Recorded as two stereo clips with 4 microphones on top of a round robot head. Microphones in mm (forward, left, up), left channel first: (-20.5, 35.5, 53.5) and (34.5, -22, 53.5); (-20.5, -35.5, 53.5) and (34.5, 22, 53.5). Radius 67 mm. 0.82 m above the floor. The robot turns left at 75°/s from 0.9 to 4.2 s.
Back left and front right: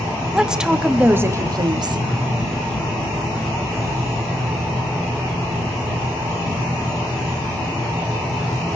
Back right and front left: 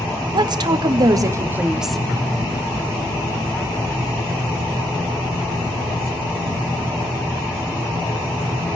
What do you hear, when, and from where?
0.3 s a woman speaking: 35° left, 1.7 m; by 2.0 s 50° right, 1.7 m